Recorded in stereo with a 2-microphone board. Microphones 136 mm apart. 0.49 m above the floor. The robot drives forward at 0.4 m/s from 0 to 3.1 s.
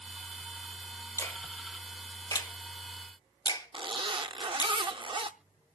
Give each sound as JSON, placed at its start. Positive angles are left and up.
{"t": 1.2, "sound": "a finger snap", "side_deg": 20, "distance_m": 1.4}
{"t": 3.7, "sound": "a zipper", "side_deg": -40, "distance_m": 0.6}